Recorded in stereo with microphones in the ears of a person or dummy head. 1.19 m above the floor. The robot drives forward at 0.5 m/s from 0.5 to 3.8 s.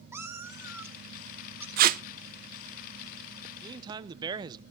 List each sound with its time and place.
0.1 s a cat meowing: 10° right (ahead or behind), 1.1 m; by 1.7 s 5° right (ahead or behind), 1.7 m
1.8 s tape being pulled: 45° right (ahead or behind), 0.5 m; by 2.0 s 40° right (ahead or behind), 0.6 m
3.6 s a man speaking: 20° right (ahead or behind), 0.8 m; by 4.6 s 25° right (ahead or behind), 0.7 m